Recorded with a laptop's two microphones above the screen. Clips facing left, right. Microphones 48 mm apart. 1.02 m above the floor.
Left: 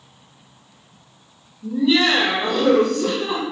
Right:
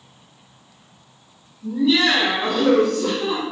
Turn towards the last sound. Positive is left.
turn(degrees=30)  # may be behind; listen again after turning